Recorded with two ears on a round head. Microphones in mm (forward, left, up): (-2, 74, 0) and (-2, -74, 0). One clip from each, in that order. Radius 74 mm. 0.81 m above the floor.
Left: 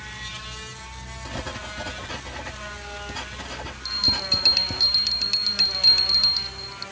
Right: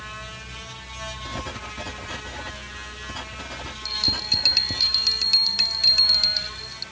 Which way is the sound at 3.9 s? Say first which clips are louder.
Left 1 dB; 10° right (ahead or behind).